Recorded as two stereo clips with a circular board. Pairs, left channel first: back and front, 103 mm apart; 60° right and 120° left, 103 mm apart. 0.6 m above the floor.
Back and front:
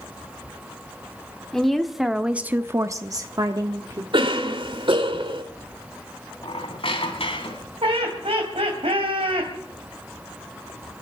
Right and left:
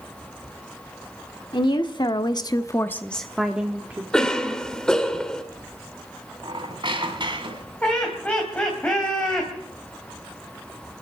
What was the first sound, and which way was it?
A woman speaking, 95° right.